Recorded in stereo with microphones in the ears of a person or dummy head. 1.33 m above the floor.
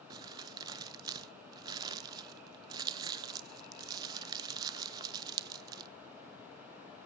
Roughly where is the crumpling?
Centre.